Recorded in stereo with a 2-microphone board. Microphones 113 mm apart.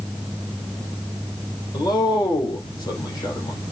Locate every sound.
1.7 s a man speaking: 35° left (ahead or behind), 4 m